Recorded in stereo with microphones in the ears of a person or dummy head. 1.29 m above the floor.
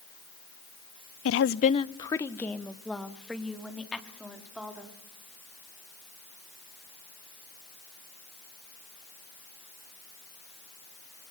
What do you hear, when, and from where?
1.2 s a woman speaking: 65° left (ahead or behind), 0.6 m; by 5.0 s 5° right (ahead or behind), 4 m